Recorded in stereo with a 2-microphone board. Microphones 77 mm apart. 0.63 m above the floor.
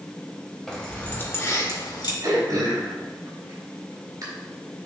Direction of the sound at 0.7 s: 5° left (ahead or behind).